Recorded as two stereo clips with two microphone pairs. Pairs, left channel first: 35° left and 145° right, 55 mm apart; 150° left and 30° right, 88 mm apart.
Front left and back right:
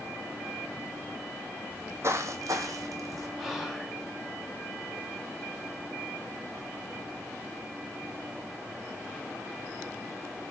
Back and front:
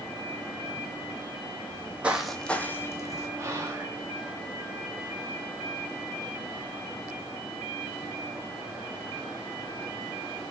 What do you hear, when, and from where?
1.7 s footsteps: 85° right, 0.6 m; by 3.3 s 160° right, 0.9 m
3.4 s whispering: 60° right, 1.0 m